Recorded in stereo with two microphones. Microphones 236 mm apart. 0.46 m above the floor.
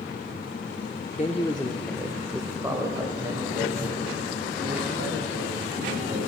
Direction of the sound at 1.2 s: 30° left (ahead or behind).